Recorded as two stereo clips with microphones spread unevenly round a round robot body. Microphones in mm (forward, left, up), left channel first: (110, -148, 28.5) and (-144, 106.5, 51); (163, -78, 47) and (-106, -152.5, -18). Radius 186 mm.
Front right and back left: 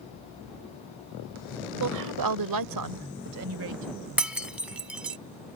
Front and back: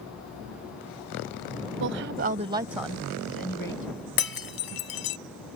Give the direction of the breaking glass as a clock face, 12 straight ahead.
10 o'clock.